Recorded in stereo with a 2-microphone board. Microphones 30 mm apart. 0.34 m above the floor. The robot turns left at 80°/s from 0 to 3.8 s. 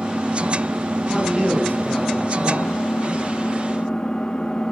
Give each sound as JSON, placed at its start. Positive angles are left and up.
{"t": 0.0, "sound": "an engine running", "azimuth_deg": -35, "distance_m": 3.0}
{"t": 1.1, "sound": "a man speaking", "azimuth_deg": 180, "distance_m": 9.5}